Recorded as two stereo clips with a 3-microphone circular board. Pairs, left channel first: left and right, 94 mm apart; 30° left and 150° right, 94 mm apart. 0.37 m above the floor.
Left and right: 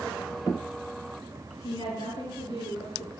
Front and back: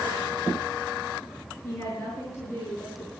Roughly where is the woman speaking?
Left.